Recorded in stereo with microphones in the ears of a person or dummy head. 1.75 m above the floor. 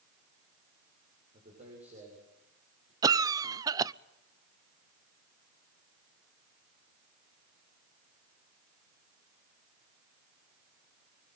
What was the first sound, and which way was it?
A man speaking, 35° right (ahead or behind).